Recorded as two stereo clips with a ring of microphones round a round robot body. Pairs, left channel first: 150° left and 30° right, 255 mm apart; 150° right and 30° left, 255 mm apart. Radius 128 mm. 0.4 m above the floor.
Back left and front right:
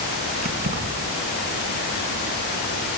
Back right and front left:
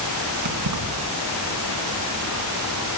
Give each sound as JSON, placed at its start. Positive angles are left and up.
{"t": 0.4, "sound": "keys jangling", "azimuth_deg": 30, "distance_m": 3.0}